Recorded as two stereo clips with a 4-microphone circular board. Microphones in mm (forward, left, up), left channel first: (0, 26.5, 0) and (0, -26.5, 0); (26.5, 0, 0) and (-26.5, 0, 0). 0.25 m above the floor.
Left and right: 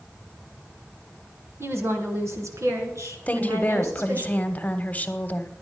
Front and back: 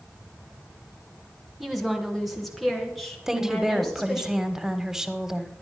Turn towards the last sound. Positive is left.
turn(degrees=110)